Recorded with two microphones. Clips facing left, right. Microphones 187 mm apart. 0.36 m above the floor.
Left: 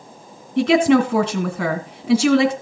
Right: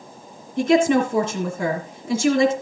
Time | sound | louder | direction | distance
0.6 | a woman speaking | left 2 dB | 70° left (ahead or behind) | 2.5 m